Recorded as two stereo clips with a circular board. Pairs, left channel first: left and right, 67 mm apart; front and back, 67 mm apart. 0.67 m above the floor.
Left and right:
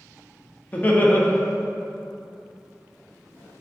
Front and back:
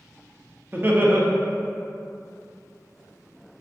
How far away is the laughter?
About 0.6 m.